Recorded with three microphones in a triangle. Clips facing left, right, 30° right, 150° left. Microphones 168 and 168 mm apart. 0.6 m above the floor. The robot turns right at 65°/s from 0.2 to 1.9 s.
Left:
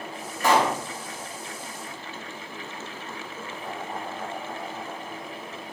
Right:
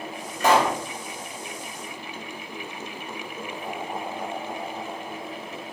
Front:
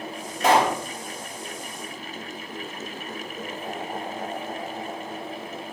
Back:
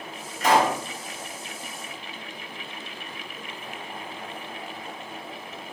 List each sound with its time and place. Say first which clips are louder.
0.4 s a pop: right 1 dB, front 1 dB; 20° right, 3 m; by 0.8 s straight ahead, 3 m